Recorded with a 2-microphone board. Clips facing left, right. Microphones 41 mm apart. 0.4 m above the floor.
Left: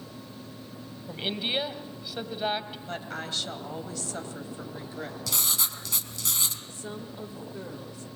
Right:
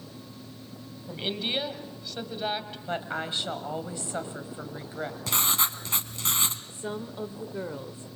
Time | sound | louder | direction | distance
1.1 | a woman speaking | even | 10° left (ahead or behind) | 1.8 m
2.9 | a woman speaking | right 5 dB | 25° right (ahead or behind) | 2 m
5.3 | writing | right 5 dB | 40° right (ahead or behind) | 1.3 m
6.7 | a woman speaking | right 4 dB | 30° right (ahead or behind) | 0.9 m